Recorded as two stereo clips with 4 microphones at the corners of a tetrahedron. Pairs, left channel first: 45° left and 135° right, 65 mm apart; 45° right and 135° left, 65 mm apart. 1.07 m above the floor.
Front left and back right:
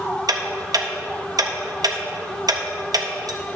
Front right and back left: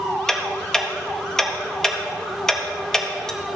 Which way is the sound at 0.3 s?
125° right.